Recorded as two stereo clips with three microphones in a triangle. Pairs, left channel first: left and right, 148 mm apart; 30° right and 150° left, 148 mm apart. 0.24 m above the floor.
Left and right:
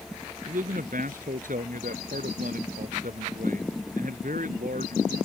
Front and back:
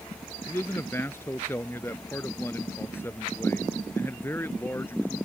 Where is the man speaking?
105° right.